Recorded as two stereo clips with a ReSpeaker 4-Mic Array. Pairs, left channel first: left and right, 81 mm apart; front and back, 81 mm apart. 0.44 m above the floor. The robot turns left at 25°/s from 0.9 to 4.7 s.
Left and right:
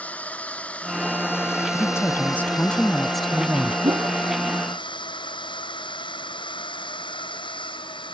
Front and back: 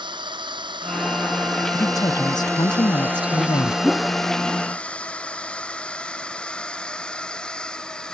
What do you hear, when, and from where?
0.0 s a drone: 165° left; by 8.1 s 80° left
1.7 s a woman speaking: 40° left; by 3.7 s 10° right
3.8 s a whoosh: 80° right; by 4.2 s 85° right